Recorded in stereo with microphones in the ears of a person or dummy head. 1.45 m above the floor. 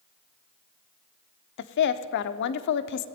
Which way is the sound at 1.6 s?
65° left (ahead or behind).